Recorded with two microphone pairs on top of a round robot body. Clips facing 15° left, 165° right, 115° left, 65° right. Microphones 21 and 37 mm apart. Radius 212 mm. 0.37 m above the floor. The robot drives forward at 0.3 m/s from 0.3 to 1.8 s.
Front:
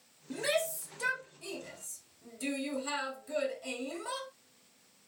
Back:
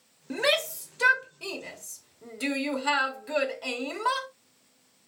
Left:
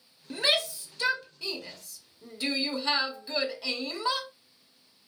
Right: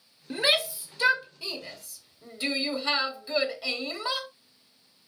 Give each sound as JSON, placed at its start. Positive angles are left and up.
{"t": 0.3, "sound": "a shout", "azimuth_deg": -140, "distance_m": 1.6}